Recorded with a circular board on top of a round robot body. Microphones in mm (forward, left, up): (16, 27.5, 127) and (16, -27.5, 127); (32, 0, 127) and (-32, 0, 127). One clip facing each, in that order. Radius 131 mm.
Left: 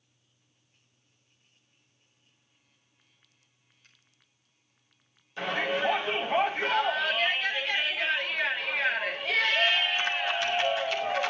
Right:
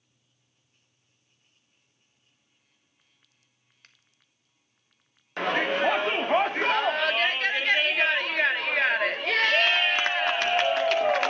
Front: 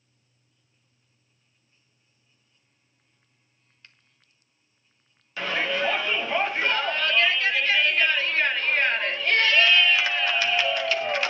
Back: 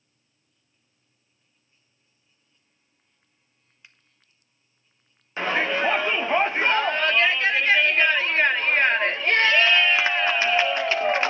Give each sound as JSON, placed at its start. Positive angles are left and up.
{"t": 3.8, "sound": "a finger snap", "azimuth_deg": -105, "distance_m": 1.6}
{"t": 5.4, "sound": "a shout", "azimuth_deg": -120, "distance_m": 2.0}